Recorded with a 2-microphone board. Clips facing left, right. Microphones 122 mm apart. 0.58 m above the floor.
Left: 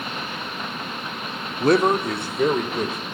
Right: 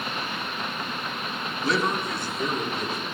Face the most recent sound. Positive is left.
turn(degrees=65)  # may be behind; listen again after turning